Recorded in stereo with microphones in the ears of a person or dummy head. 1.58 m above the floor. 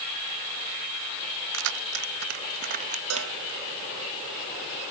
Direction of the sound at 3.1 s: 80° right.